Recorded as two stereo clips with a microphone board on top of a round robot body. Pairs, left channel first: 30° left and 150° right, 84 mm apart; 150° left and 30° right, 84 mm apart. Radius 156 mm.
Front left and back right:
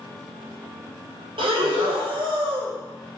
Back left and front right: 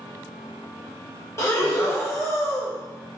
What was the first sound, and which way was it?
Breathing, 155° right.